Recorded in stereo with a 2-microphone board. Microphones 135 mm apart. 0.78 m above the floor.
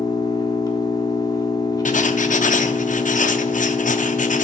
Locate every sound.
0.0 s an engine running: 30° left (ahead or behind), 1.1 m
1.9 s writing: 70° left (ahead or behind), 0.5 m